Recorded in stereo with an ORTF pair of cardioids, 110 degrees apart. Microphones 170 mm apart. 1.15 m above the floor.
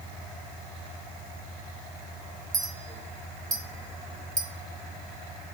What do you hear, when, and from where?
2.5 s a clink: 20° right, 0.8 m